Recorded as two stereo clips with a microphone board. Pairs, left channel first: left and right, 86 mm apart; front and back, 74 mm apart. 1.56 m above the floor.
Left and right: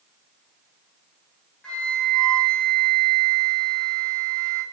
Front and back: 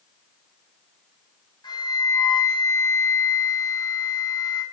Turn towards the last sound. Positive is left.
turn(degrees=10)